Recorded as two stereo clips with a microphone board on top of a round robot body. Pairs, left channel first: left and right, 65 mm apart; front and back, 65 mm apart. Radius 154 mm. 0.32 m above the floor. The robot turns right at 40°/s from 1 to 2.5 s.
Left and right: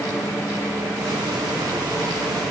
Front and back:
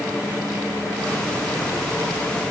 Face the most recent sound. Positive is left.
No sound to turn to.